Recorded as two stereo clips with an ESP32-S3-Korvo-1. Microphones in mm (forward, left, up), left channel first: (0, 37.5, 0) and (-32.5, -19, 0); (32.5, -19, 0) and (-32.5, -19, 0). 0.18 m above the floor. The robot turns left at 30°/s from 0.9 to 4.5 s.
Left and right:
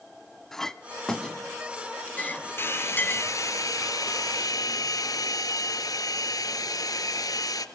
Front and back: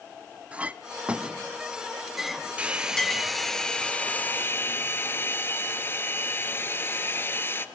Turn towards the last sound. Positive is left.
turn(degrees=55)